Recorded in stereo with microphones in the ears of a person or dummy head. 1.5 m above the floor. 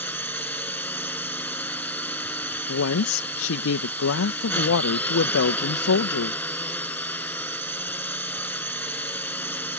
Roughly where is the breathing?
No breathing in this recording.